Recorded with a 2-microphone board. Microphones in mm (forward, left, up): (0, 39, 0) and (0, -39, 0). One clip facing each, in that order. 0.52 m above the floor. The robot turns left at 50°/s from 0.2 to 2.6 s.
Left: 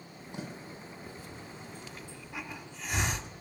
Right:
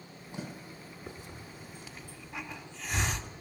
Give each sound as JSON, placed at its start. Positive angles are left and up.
{"t": 1.1, "sound": "a hiss", "side_deg": -20, "distance_m": 1.3}